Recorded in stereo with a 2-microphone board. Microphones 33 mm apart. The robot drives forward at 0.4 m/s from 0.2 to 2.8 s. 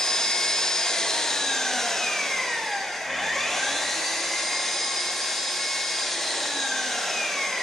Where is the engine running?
15° left (ahead or behind), 0.7 m; by 7.6 s 10° left (ahead or behind), 1.1 m.